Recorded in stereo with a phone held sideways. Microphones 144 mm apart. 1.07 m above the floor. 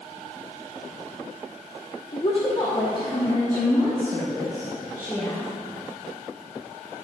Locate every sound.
2.1 s a woman speaking: 40° left (ahead or behind), 0.7 m; by 5.5 s 20° left (ahead or behind), 3.5 m